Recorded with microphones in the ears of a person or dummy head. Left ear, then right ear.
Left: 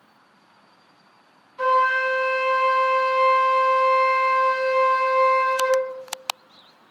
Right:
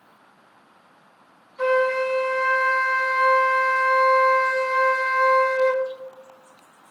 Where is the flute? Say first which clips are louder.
Left 1 dB; 25° left (ahead or behind), 1.1 m.